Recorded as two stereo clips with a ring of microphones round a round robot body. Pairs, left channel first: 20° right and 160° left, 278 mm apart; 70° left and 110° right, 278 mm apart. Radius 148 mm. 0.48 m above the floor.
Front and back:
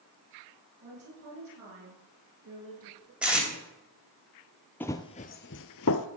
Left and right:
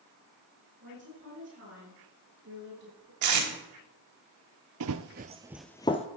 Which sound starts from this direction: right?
Running footsteps, at 4.8 s.